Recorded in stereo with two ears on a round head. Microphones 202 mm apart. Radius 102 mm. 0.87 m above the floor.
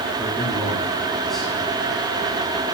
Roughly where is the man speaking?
Centre.